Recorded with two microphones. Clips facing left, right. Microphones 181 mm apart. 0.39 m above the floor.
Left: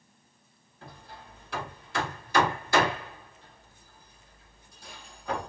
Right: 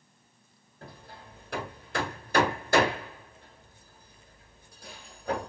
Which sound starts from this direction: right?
Hammering, at 0.8 s.